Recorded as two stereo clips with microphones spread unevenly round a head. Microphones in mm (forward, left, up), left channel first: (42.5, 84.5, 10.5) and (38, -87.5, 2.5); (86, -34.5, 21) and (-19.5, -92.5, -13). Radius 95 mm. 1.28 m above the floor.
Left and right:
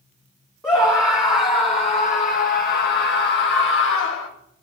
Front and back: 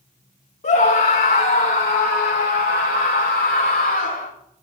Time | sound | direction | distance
0.6 | a scream | 10° left | 1.8 m